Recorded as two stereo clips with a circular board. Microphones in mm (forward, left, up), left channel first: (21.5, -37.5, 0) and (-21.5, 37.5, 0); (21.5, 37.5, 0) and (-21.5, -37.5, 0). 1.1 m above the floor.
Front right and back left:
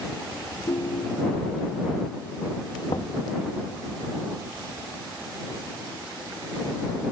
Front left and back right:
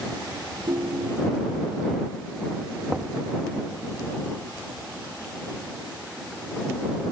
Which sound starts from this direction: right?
A ringtone, at 0.7 s.